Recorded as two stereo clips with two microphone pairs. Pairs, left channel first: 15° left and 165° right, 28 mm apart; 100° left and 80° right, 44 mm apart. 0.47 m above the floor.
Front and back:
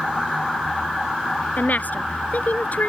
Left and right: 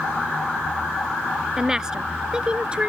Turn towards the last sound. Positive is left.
turn(degrees=-15)